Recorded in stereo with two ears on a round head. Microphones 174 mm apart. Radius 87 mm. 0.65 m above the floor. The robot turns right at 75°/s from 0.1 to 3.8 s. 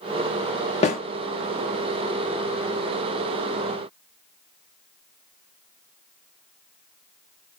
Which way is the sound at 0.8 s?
35° left (ahead or behind).